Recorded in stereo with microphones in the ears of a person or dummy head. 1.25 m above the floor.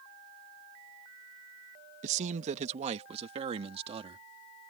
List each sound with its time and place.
2.0 s a man speaking: 40° right (ahead or behind); by 4.7 s 30° right (ahead or behind)